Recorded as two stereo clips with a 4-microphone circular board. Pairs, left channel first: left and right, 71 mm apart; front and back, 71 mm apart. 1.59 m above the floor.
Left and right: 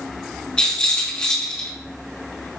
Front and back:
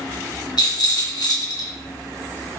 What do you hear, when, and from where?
0.6 s a rattle: 15° left, 2 m